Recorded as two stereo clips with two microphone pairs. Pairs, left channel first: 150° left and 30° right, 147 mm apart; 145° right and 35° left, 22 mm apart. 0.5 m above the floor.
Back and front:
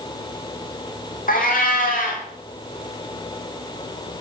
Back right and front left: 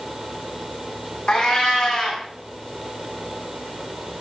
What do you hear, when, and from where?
1.3 s a cat meowing: 165° left, 2.5 m